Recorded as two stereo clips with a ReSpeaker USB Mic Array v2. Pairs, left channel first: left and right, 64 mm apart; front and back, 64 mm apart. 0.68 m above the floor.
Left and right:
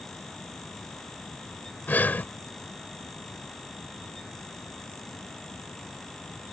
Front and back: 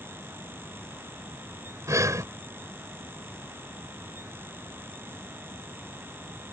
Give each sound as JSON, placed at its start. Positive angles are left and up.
{"t": 1.9, "sound": "breathing", "azimuth_deg": 150}